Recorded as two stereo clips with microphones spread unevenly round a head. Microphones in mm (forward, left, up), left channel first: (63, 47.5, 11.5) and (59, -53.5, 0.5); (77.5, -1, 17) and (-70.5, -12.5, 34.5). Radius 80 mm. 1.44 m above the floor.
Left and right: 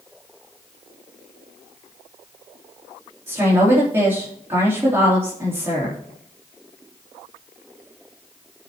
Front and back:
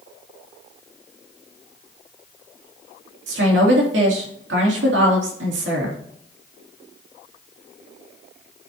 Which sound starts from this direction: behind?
A woman speaking, at 3.3 s.